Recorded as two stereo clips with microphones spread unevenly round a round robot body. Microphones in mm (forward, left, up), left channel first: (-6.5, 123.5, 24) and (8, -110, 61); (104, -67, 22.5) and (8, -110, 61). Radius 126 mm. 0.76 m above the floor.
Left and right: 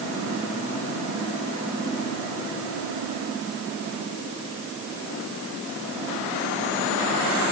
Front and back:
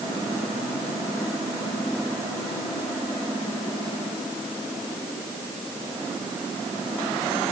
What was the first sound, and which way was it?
Only background noise.